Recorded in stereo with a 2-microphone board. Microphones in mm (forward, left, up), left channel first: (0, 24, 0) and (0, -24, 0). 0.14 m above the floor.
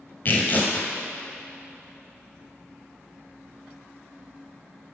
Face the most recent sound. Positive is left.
turn(degrees=40)  # may be behind; listen again after turning